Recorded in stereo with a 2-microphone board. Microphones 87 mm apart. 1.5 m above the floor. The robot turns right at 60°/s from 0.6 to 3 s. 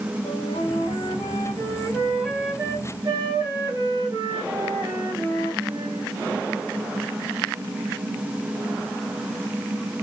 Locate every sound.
0.2 s a flute: 80° left, 3.5 m; by 6.1 s 140° right, 3.5 m